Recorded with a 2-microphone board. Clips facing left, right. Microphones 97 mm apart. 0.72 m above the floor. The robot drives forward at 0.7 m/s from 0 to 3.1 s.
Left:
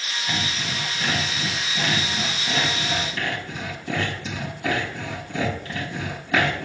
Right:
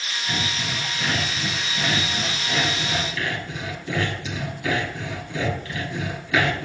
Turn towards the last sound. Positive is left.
turn(degrees=40)  # may be behind; listen again after turning